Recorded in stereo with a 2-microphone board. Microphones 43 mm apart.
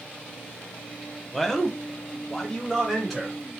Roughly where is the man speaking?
Centre.